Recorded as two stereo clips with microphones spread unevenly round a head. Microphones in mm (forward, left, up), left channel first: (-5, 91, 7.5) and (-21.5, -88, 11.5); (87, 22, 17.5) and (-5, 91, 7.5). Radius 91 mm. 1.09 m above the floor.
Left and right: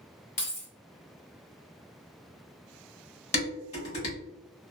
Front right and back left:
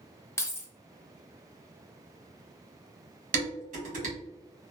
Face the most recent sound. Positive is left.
turn(degrees=140)